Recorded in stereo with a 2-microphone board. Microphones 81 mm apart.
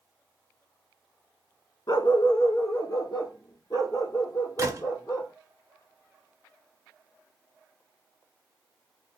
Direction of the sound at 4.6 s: 40° right (ahead or behind).